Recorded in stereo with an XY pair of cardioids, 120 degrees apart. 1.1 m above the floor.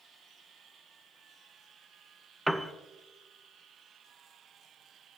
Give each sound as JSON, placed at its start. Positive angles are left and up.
{"t": 2.5, "sound": "a piano", "azimuth_deg": -5, "distance_m": 0.7}